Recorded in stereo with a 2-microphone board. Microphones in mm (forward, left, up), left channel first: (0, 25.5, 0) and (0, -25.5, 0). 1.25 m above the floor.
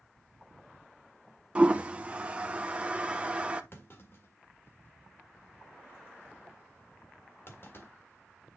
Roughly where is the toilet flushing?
Right.